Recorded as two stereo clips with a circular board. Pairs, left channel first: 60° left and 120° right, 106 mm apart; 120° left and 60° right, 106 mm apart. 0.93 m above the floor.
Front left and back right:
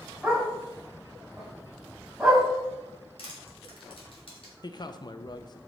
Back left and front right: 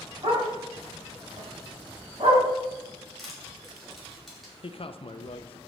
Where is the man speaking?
105° left, 0.5 m.